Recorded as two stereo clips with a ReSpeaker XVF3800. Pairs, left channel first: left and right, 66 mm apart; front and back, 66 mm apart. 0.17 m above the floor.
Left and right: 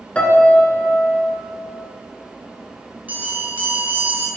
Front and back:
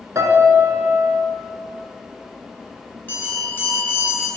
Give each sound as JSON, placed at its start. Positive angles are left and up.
{"t": 0.1, "sound": "a piano", "azimuth_deg": 155, "distance_m": 1.0}
{"t": 3.1, "sound": "a bell", "azimuth_deg": -40, "distance_m": 2.0}